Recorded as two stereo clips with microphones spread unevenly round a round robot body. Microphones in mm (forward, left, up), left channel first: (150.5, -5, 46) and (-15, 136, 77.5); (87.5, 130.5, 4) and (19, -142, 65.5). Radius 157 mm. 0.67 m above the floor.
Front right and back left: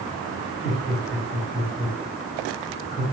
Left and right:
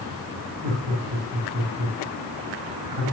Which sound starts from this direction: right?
Laughter, at 0.6 s.